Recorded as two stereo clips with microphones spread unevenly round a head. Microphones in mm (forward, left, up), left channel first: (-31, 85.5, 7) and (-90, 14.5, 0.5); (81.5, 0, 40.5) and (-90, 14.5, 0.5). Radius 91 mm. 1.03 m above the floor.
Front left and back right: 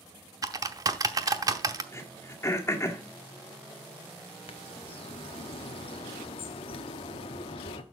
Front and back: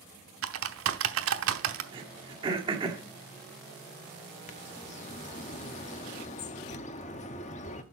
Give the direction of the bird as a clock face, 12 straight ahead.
11 o'clock.